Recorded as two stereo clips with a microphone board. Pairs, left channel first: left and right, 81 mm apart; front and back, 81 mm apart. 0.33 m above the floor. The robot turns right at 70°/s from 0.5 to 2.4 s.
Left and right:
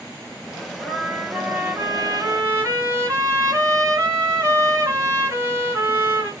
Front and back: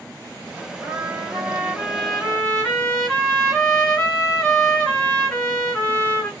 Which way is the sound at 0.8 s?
175° left.